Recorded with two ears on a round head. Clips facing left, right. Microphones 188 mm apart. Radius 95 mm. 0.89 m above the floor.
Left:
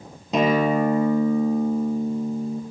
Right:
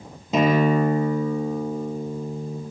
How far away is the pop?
No pop in this recording.